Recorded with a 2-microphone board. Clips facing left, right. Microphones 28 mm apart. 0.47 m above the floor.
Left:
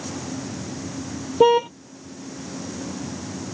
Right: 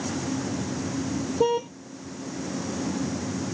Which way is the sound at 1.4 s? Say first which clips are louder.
Left 8 dB; 40° left (ahead or behind).